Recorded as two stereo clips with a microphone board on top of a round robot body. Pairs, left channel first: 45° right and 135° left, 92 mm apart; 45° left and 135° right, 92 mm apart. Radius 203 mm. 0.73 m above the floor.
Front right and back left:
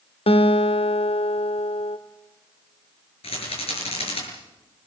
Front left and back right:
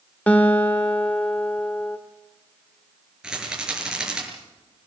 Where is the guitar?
30° right, 0.6 m.